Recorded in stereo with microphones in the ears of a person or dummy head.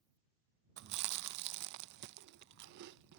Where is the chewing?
60° right (ahead or behind).